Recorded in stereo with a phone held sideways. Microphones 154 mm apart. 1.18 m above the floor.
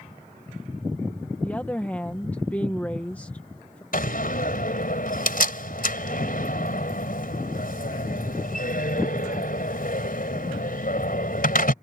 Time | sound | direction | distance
1.4 | a woman speaking | 10° left (ahead or behind) | ?
3.9 | a door slam | 65° left (ahead or behind) | ?